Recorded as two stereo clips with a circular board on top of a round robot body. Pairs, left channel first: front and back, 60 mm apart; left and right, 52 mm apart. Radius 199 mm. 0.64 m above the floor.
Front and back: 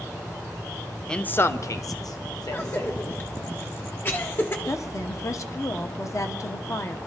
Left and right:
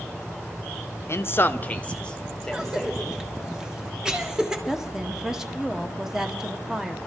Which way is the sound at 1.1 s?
80° left.